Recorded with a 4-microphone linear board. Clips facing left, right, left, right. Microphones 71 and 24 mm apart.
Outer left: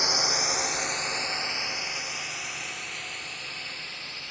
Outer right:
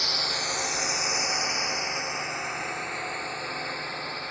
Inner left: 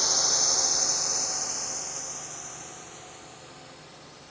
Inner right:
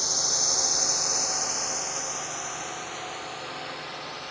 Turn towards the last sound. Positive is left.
turn(degrees=-40)  # may be behind; listen again after turning